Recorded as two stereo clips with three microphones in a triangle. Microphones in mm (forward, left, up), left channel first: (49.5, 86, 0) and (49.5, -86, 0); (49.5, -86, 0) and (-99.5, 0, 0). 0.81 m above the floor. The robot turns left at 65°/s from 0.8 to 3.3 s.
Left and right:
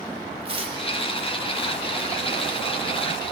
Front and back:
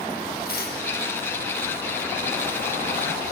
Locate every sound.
0.5 s tearing paper: 35° right, 1.1 m; by 0.8 s 40° right, 1.1 m